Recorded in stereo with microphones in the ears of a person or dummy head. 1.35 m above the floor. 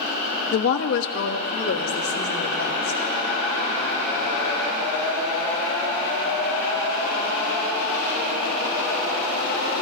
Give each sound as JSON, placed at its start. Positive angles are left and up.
{"t": 0.5, "sound": "a woman speaking", "side_deg": 75, "distance_m": 0.6}